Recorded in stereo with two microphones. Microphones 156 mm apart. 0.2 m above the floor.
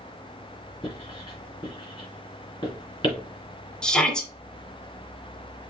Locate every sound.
0.8 s writing: 30° left (ahead or behind), 2.5 m
3.8 s a shout: 5° left (ahead or behind), 1.5 m